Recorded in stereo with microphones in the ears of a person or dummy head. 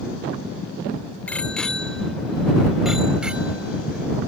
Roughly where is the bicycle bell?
Centre.